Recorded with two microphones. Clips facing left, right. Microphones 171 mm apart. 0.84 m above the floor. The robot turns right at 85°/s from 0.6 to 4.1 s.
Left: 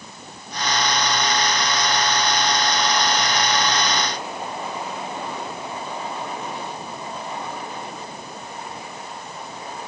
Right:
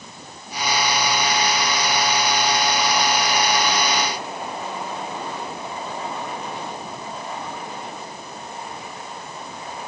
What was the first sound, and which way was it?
Only background noise.